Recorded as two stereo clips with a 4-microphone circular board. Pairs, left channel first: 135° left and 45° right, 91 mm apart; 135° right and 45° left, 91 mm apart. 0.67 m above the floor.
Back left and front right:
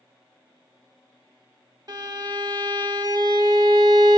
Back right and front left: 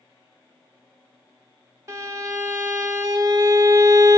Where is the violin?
5° right, 1.1 m.